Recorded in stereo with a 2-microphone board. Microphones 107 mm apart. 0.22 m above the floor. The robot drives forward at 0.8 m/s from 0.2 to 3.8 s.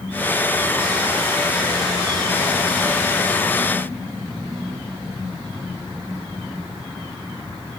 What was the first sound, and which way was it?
Only background noise.